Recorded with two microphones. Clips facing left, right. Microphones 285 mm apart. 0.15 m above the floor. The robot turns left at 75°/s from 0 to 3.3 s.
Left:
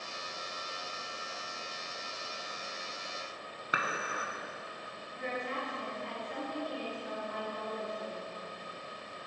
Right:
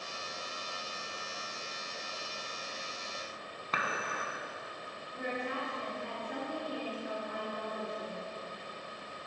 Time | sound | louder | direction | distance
3.7 | dishes clattering | even | 10° left (ahead or behind) | 0.7 m
5.1 | a woman speaking | right 1 dB | 55° right (ahead or behind) | 2.5 m